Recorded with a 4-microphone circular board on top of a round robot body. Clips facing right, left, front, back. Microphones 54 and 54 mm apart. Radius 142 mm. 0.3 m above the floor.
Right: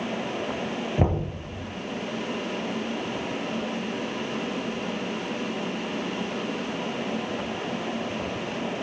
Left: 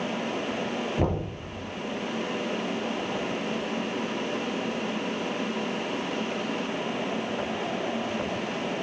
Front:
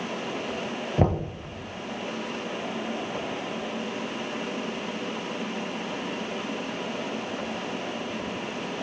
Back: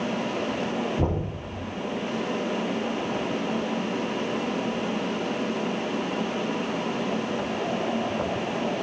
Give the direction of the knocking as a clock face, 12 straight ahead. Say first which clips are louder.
Right 3 dB, front 2 dB; 1 o'clock.